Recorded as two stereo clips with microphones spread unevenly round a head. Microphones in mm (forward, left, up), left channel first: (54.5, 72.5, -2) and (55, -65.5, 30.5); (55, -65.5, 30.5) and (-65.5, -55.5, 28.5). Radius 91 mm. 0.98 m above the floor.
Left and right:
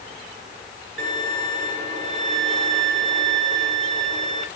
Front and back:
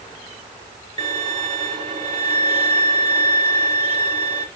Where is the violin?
140° right, 3 m.